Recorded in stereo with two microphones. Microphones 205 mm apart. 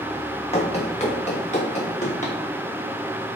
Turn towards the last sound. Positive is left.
turn(degrees=35)  # may be behind; listen again after turning